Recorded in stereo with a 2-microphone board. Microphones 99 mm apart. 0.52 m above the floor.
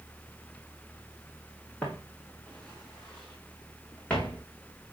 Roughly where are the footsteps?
Centre.